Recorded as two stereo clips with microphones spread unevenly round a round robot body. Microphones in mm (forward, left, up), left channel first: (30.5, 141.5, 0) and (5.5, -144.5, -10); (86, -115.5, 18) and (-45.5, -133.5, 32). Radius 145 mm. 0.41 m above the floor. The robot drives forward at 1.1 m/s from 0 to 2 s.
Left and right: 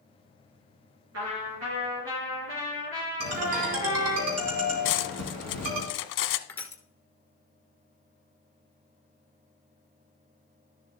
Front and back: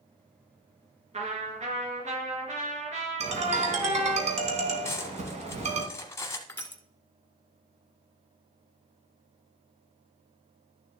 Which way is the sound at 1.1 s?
135° right.